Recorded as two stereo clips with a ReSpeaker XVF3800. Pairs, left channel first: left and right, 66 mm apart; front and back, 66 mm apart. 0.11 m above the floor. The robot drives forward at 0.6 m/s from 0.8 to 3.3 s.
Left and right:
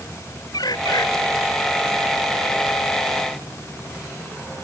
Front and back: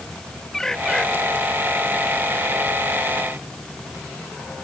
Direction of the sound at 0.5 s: 80° left.